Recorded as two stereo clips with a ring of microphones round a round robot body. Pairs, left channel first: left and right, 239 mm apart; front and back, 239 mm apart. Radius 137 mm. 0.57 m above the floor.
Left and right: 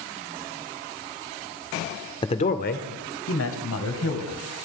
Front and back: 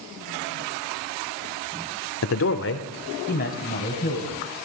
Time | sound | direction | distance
2.2 | a man speaking | 20° left | 1.2 m